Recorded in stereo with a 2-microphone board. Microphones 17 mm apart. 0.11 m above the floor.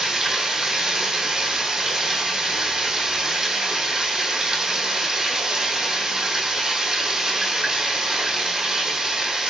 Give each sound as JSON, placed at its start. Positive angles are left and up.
{"t": 0.0, "sound": "running water", "side_deg": -40, "distance_m": 1.7}